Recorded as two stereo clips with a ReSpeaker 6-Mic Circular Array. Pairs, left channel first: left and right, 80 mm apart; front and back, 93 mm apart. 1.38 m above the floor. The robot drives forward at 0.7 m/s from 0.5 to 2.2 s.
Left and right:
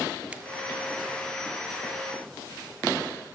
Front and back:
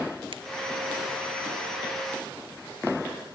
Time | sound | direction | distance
0.3 | a finger snap | 165° right | 1.7 m